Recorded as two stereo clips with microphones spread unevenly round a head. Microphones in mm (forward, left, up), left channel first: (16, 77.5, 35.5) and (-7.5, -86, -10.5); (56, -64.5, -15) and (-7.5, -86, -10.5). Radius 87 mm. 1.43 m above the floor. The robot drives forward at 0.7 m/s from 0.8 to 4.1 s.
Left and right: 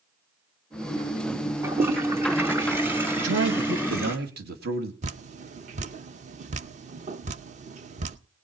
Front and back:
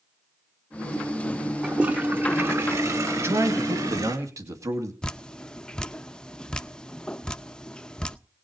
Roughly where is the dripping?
Ahead right.